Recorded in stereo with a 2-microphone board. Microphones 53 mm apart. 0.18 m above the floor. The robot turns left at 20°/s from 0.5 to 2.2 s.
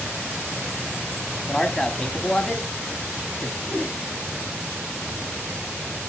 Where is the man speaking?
10° left (ahead or behind), 1.0 m.